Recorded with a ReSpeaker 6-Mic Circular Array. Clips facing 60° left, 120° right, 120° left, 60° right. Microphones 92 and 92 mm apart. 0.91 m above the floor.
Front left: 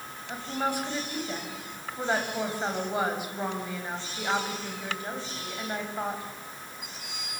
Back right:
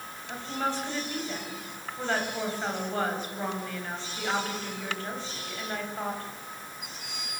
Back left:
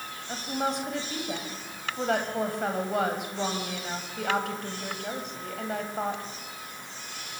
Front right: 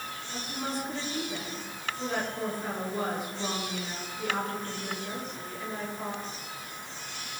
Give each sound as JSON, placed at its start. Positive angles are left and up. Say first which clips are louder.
{"t": 0.3, "sound": "a woman speaking", "louder": "front left 1 dB, back left 6 dB", "azimuth_deg": 135, "distance_m": 6.0}